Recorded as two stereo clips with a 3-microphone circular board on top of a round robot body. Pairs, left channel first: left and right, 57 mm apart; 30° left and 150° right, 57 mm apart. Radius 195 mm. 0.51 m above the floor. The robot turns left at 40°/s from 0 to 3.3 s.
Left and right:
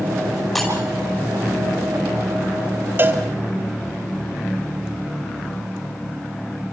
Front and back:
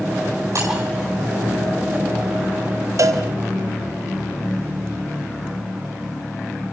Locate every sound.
0.6 s breaking glass: straight behind, 5.5 m; by 0.7 s 175° left, 5.5 m
3.0 s a cowbell: 140° right, 2 m; by 3.2 s 150° right, 2 m